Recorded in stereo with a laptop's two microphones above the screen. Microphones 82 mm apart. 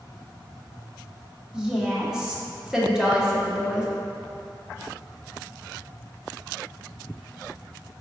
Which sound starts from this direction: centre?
A woman speaking, at 1.5 s.